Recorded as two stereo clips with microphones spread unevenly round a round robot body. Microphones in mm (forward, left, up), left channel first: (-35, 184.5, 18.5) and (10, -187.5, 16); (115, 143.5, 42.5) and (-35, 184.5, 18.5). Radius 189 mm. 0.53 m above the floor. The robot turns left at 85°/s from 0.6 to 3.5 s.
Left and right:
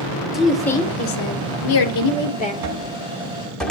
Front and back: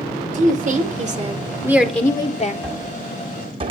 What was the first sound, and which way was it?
A woman speaking, 170° right.